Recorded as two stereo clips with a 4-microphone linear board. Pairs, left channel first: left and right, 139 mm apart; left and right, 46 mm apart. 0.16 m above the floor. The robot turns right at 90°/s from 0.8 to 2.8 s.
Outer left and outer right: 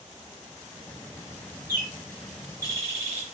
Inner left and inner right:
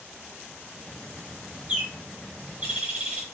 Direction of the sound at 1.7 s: 15° right (ahead or behind).